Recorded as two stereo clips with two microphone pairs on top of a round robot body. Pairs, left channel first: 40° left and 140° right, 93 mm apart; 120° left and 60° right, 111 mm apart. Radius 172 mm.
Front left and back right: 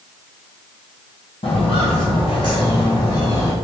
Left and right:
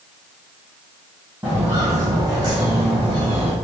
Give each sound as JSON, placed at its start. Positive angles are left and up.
{"t": 1.4, "sound": "footsteps", "azimuth_deg": 20, "distance_m": 1.7}